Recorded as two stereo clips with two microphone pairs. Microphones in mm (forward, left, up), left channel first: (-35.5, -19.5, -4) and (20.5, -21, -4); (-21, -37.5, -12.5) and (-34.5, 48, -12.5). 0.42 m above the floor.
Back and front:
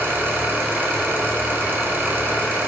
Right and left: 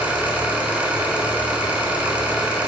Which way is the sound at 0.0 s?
30° left.